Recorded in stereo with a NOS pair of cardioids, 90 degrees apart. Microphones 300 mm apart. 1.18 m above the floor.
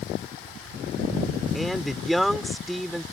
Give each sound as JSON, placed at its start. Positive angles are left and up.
{"t": 1.5, "sound": "a man speaking", "azimuth_deg": 0}